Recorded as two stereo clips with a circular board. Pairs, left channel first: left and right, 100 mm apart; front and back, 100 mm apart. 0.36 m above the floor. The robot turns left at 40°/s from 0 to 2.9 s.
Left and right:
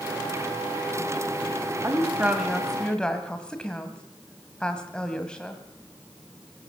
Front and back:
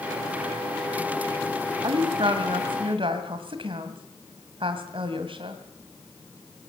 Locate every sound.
1.8 s a woman speaking: 150° right, 2 m; by 5.6 s 170° left, 2 m